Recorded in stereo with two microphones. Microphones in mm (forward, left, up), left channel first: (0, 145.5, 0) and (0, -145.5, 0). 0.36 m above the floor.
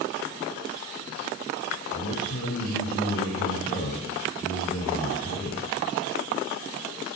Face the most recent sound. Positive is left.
turn(degrees=50)  # may be behind; listen again after turning